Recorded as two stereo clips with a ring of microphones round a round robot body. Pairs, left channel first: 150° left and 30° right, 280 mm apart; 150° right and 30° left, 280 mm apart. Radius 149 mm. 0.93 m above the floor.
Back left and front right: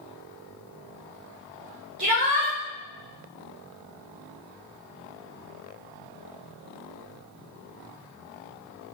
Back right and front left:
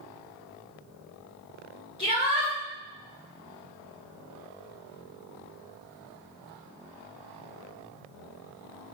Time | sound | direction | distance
2.0 | a shout | 80° right | 3 m